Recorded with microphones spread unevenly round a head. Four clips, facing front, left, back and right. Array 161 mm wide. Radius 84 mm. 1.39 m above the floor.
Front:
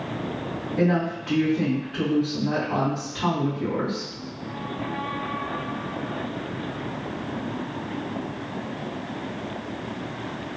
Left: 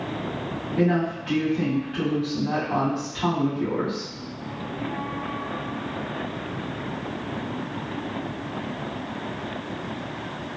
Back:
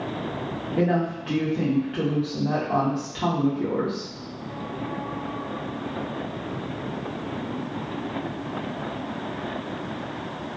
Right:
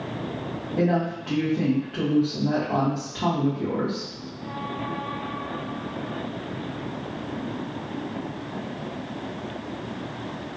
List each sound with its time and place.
0.8 s a woman speaking: 145° right, 1.4 m